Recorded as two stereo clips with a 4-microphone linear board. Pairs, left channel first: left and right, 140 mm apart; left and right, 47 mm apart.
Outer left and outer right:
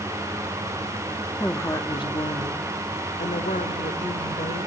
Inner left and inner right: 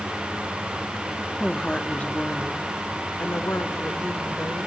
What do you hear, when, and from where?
1.4 s a woman speaking: 10° left (ahead or behind), 0.8 m; by 4.7 s 75° left (ahead or behind), 2 m